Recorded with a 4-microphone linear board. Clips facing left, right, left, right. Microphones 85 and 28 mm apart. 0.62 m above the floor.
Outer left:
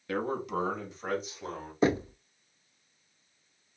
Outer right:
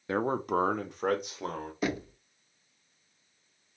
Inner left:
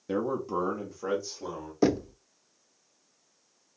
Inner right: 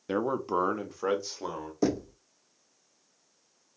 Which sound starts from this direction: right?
A man speaking, at 0.1 s.